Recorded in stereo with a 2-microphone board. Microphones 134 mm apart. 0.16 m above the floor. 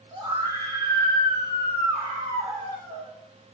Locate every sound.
0.1 s a scream: 35° right (ahead or behind), 6.5 m